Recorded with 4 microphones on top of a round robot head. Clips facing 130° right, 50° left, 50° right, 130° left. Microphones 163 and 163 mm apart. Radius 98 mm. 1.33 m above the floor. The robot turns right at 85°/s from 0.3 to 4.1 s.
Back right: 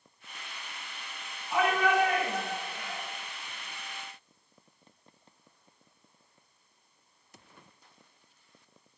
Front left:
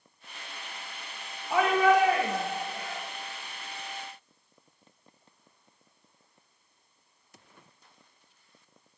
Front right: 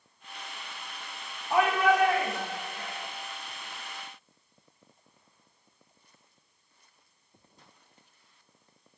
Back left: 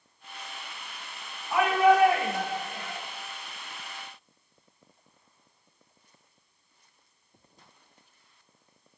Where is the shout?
5° left, 1.7 m; by 3.0 s 135° left, 1.7 m.